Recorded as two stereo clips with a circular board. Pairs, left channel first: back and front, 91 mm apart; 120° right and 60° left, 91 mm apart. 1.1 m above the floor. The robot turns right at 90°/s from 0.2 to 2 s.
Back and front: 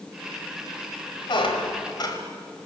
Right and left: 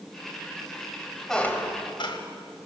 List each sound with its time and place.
1.3 s a squeak: 155° left, 2.5 m; by 2.2 s 145° right, 2.5 m